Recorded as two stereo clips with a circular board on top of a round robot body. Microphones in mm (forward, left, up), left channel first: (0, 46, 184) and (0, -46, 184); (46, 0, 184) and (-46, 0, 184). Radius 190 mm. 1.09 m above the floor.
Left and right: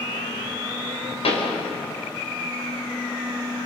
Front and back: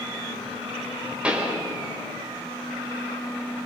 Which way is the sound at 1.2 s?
100° left.